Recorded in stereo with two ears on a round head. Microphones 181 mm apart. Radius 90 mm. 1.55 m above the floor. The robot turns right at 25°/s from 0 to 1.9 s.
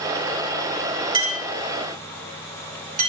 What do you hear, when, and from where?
1.1 s a clink: 20° right (ahead or behind), 3.5 m; by 3.1 s 40° right (ahead or behind), 3.5 m